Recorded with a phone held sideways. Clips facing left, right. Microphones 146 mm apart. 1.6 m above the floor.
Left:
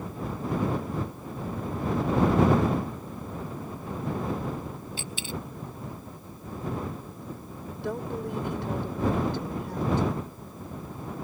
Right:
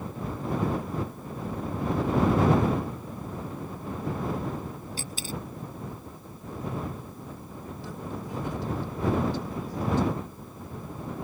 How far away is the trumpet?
No trumpet in this recording.